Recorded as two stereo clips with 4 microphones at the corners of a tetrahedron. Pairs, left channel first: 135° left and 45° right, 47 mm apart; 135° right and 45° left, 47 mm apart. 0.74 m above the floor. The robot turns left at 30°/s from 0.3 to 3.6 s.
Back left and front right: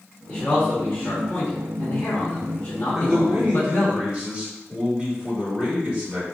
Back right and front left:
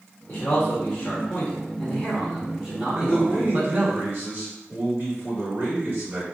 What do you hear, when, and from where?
0.3 s a man speaking: 170° right, 1.0 m; by 4.0 s 95° left, 1.0 m
3.0 s a man speaking: 35° left, 1.4 m; by 6.2 s 15° left, 1.4 m